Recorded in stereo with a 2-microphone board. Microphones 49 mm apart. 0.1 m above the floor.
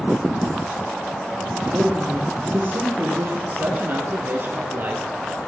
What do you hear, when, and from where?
1.6 s a woman speaking: 45° right (ahead or behind), 2.5 m
3.5 s a man speaking: 45° right (ahead or behind), 1.8 m